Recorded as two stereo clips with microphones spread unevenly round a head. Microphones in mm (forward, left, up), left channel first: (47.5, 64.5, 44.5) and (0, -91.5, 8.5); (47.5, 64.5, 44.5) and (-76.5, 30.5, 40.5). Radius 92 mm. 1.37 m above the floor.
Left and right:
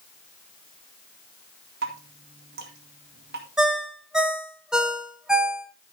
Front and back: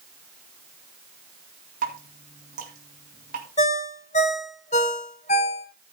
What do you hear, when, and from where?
1.8 s dripping: 135° right, 2 m
3.6 s a ringtone: 10° right, 1.0 m